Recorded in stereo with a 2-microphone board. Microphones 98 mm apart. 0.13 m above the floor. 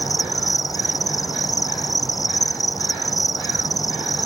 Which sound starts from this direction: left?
An insect, at 0.0 s.